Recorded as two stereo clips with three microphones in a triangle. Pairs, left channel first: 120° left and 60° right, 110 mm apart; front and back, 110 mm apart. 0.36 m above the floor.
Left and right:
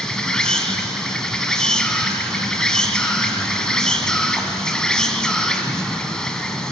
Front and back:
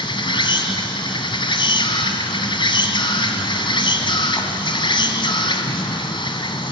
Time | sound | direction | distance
0.0 | an insect | 35° left | 2.0 m